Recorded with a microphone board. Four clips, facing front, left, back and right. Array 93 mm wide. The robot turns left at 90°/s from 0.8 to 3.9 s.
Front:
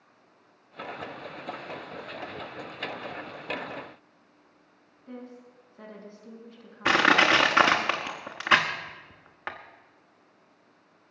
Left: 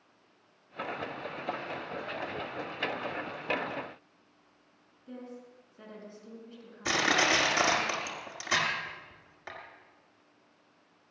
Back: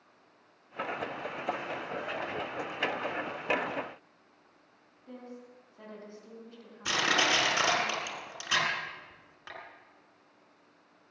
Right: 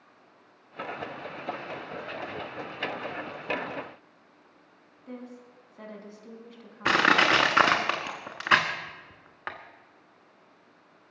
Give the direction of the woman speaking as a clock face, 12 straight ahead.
3 o'clock.